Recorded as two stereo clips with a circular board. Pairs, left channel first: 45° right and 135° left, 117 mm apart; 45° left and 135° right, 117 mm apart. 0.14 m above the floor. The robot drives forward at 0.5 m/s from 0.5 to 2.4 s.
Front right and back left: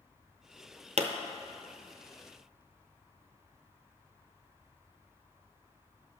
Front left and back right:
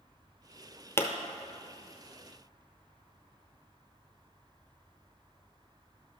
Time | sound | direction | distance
1.0 | a pop | 110° left | 0.7 m